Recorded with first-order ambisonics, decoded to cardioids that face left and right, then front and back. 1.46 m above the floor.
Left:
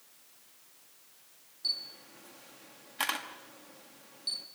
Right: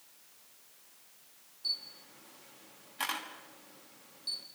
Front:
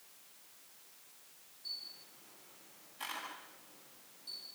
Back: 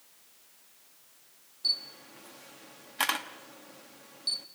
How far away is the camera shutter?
About 1.6 m.